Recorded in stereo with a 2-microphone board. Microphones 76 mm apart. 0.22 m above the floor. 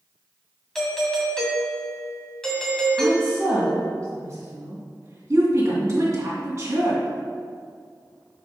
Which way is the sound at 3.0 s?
45° right (ahead or behind).